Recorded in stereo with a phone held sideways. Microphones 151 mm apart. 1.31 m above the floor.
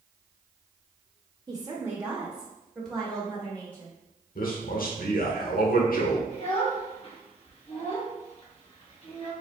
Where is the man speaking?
70° left (ahead or behind), 1.2 m.